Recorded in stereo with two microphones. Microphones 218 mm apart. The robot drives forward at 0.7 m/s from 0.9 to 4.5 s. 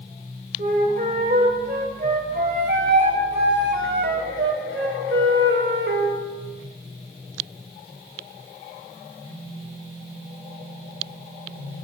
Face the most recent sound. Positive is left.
turn(degrees=-65)  # may be behind; listen again after turning